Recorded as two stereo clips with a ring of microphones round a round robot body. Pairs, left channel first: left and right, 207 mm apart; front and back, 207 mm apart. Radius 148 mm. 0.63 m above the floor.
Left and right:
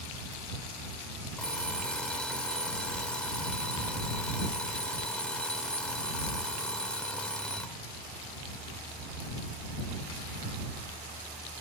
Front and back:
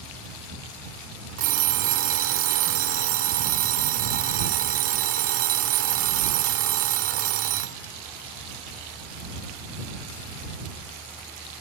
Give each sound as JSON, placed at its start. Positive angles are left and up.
{"t": 1.4, "sound": "an alarm clock", "azimuth_deg": 175}